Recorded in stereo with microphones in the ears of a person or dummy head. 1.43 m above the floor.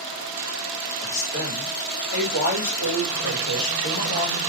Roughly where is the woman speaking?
Left.